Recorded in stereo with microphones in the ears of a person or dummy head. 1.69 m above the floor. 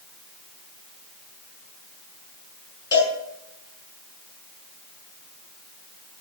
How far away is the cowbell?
About 7 m.